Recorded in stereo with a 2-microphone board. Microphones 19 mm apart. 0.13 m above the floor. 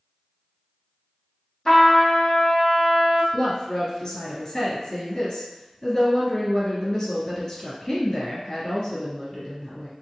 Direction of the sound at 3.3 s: 30° left (ahead or behind).